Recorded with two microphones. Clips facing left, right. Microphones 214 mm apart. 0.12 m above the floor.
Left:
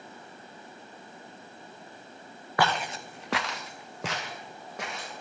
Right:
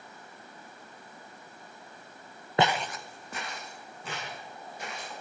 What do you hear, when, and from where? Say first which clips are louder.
2.6 s footsteps: right 1 dB; 25° right (ahead or behind), 0.7 m; by 5.1 s 70° left (ahead or behind), 3.5 m